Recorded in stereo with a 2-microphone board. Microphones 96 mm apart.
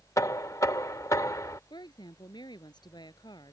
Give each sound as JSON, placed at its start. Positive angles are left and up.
{"t": 0.2, "sound": "knocking", "side_deg": 35}
{"t": 1.7, "sound": "a woman speaking", "side_deg": 55}